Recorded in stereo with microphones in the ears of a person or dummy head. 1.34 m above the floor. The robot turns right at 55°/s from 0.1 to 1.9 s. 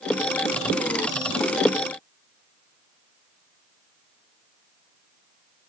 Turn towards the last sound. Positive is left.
No sound to turn to.